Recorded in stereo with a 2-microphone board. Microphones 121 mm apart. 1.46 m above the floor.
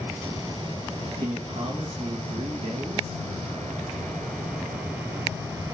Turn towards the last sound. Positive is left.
turn(degrees=-60)  # may be behind; listen again after turning